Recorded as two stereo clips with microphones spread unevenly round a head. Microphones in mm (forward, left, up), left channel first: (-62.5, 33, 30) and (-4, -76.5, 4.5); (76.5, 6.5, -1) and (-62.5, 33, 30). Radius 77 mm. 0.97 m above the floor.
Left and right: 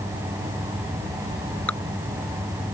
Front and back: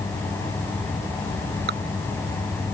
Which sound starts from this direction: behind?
Dripping, at 1.7 s.